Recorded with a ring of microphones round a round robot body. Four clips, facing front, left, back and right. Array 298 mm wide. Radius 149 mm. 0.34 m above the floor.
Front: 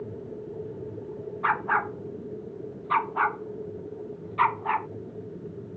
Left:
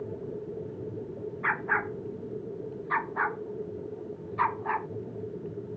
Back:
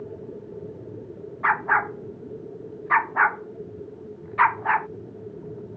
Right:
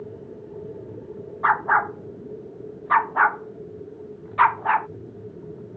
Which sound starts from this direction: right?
A dog barking, at 1.4 s.